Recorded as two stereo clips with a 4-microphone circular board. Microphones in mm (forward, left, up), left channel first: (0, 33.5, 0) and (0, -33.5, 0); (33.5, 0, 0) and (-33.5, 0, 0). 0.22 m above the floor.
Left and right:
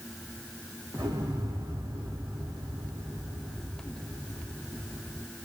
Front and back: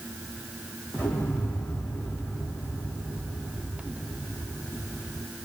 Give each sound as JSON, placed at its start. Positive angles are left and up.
{"t": 0.9, "sound": "an explosion", "azimuth_deg": -70, "distance_m": 5.5}